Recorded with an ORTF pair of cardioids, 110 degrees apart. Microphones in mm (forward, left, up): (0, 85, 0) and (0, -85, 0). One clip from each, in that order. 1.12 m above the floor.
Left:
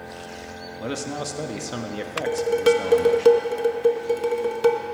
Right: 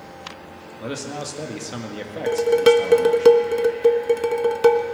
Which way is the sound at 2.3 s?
20° right.